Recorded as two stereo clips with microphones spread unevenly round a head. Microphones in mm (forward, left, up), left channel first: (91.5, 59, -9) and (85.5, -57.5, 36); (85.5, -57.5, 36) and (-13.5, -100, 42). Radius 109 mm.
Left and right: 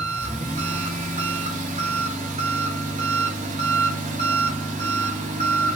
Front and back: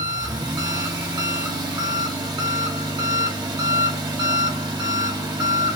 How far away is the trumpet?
I don't hear a trumpet.